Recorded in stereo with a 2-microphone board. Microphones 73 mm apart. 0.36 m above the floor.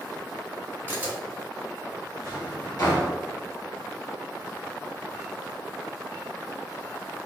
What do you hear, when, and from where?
0.9 s a camera shutter: 30° right (ahead or behind), 1.5 m
2.2 s a drawer: 60° left (ahead or behind), 1.4 m